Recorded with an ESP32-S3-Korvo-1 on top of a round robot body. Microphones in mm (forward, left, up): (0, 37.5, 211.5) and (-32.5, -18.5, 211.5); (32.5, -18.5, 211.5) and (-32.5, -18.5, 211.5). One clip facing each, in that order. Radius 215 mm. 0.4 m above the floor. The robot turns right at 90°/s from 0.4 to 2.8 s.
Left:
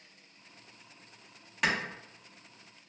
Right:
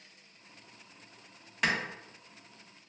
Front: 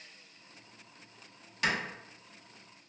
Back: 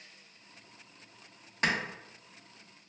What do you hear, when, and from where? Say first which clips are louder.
1.6 s a clap: even, back 1 dB; 150° left, 1.2 m; by 1.8 s 160° left, 1.2 m